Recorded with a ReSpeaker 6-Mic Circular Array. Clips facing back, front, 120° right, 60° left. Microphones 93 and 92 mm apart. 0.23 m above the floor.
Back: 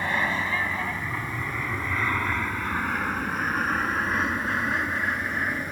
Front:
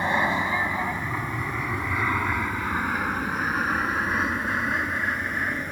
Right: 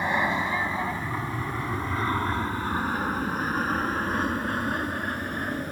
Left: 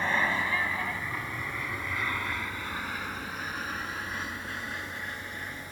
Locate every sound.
0.0 s an aircraft: 55° right; by 5.7 s 90° right